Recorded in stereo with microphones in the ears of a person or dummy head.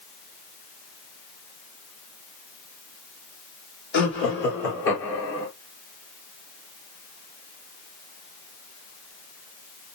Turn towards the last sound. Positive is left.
turn(degrees=65)  # may be behind; listen again after turning